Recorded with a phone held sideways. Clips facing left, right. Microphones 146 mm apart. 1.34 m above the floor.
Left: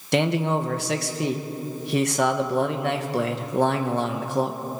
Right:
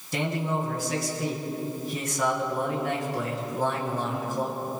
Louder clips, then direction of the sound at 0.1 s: Left 6 dB; 75° left (ahead or behind).